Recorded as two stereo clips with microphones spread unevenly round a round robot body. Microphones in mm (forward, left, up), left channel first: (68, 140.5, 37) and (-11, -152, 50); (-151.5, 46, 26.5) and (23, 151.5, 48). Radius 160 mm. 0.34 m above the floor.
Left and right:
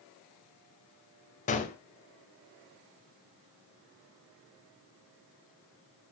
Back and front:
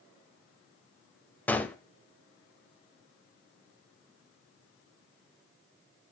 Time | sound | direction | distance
1.5 | a gunshot | 135° left | 1.1 m